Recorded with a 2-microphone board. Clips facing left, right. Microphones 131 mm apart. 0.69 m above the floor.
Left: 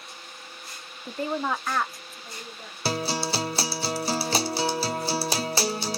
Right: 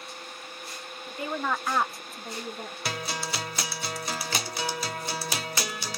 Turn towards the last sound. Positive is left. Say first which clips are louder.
# left 7 dB
turn(degrees=30)  # may be behind; listen again after turning